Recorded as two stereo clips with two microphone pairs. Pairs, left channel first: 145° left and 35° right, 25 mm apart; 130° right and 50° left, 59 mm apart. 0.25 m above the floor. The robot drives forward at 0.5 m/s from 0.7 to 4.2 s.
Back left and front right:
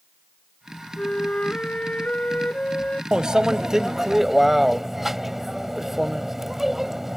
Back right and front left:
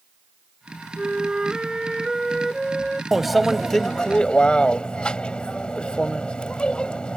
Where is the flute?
115° left; by 3.0 s 135° left.